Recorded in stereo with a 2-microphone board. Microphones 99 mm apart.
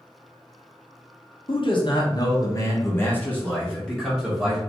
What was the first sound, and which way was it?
A man speaking, 60° left (ahead or behind).